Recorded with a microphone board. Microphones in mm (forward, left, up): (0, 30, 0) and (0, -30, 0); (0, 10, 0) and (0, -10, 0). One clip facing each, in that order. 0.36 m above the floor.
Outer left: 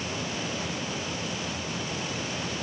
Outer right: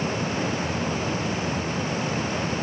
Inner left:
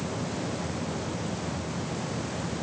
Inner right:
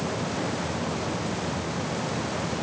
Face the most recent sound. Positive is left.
No sound to turn to.